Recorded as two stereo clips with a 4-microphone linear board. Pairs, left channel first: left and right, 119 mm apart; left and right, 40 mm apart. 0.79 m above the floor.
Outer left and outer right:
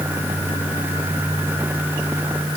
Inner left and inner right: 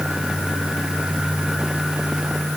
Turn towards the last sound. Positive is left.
No sound to turn to.